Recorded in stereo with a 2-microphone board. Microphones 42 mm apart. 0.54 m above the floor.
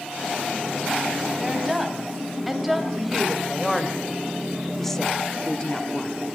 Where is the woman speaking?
5° right (ahead or behind), 3 m; by 6.1 s 25° left (ahead or behind), 0.9 m.